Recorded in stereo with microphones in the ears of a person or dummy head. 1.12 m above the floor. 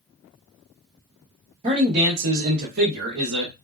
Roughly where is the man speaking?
Right.